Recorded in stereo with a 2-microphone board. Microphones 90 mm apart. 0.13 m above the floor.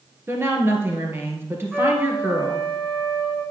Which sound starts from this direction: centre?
A trumpet, at 1.7 s.